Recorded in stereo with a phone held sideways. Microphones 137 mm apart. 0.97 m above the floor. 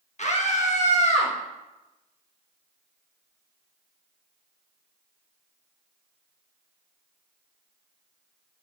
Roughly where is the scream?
Left.